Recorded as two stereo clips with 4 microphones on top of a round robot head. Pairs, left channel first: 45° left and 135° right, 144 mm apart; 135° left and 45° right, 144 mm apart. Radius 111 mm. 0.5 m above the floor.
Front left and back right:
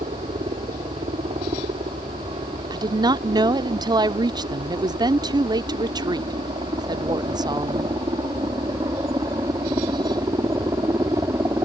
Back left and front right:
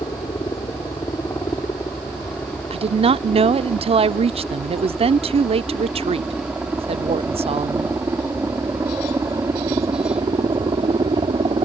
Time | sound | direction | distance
0.0 | a helicopter | 165° right | ?
2.7 | a woman speaking | 80° right | ?